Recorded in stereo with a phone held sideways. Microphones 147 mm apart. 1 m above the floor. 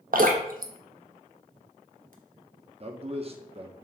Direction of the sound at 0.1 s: 65° right (ahead or behind).